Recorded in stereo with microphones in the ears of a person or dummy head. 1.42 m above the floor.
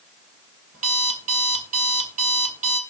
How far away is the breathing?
I don't hear breathing.